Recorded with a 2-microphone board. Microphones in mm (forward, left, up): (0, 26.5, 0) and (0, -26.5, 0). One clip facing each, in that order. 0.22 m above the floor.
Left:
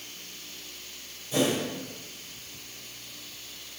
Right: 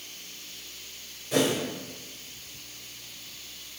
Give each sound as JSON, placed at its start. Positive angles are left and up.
{"t": 1.3, "sound": "a whoosh", "side_deg": -65, "distance_m": 5.0}